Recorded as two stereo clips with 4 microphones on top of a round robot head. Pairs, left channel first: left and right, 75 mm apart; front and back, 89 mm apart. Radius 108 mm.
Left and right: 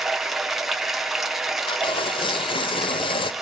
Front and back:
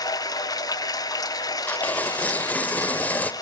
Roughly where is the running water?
Ahead.